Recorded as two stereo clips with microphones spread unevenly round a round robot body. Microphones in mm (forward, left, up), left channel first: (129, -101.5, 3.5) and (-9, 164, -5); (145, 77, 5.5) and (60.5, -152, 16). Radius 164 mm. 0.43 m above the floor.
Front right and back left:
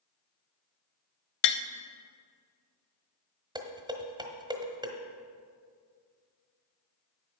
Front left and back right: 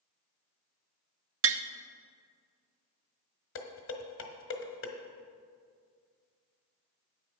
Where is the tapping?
70° right, 0.5 m.